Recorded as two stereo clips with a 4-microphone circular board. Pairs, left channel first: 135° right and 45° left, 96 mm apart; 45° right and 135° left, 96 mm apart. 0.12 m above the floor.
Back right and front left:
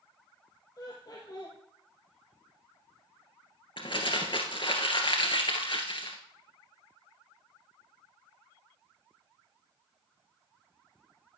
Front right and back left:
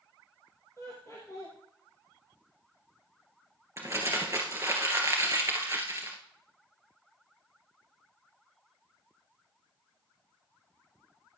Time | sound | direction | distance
0.8 | laughter | 95° right | 2.5 m
3.8 | crumpling | 165° right | 2.5 m